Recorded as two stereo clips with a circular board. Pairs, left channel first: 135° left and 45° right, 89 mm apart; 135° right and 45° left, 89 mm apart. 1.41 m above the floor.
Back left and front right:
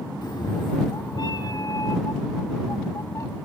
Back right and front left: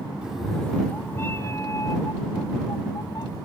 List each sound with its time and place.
0.2 s a cat meowing: 120° left; by 3.4 s 175° right